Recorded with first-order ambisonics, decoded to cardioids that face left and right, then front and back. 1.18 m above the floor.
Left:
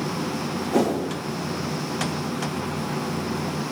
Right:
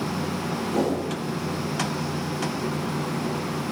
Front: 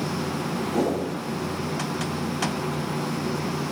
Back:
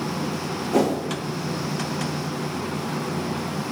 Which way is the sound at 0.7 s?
145° left.